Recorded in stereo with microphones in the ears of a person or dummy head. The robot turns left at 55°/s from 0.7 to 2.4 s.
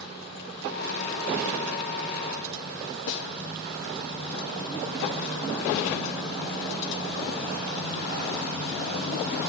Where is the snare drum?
65° left (ahead or behind), 0.8 m.